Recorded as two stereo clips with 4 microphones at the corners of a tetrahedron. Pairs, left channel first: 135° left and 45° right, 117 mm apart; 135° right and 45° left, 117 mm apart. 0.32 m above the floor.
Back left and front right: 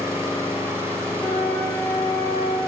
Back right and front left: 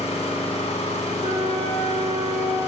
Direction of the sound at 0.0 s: 110° right.